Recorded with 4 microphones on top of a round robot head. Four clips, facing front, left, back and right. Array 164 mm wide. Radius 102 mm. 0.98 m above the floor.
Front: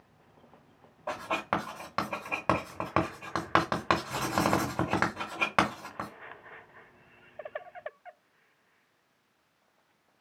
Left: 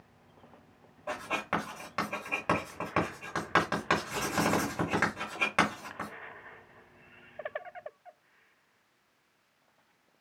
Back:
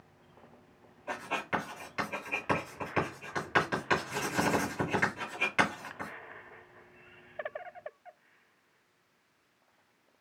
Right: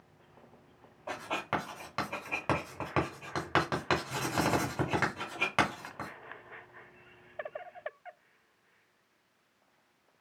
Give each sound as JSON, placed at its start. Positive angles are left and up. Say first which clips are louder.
{"t": 1.1, "sound": "writing", "louder": "left 1 dB, front 3 dB", "azimuth_deg": -5, "distance_m": 2.0}